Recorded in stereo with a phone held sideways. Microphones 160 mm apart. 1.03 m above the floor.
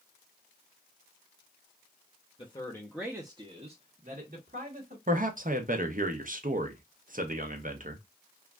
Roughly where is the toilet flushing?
No toilet flushing in this recording.